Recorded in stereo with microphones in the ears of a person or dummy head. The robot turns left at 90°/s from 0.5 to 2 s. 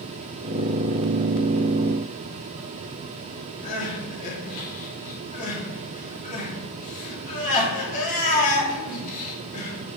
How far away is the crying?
About 2.5 m.